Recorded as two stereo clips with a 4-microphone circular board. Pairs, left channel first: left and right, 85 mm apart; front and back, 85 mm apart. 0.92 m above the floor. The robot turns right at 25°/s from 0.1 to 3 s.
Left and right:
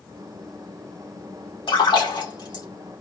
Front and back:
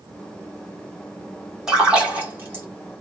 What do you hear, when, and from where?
1.7 s a splash: 95° left, 2 m; by 2.6 s 120° left, 2 m